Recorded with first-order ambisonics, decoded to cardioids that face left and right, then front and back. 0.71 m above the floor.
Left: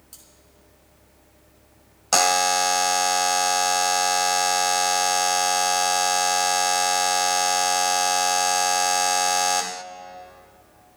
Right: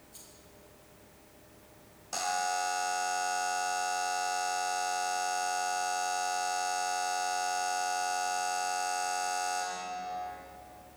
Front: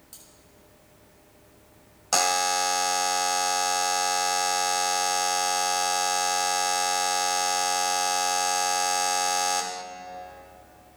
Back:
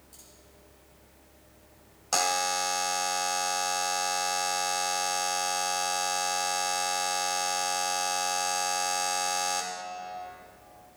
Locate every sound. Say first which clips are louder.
0.1 s cutlery clinking: left 4 dB, front 4 dB; 60° left, 5.5 m
2.1 s a buzzer: left 12 dB, front 4 dB; 80° left, 0.6 m